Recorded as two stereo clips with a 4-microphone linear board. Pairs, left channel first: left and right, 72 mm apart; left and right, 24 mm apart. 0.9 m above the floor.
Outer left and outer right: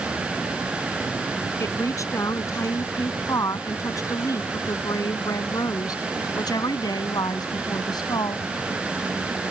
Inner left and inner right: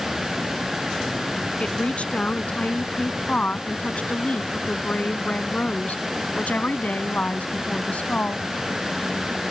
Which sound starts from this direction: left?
A woman speaking, at 1.6 s.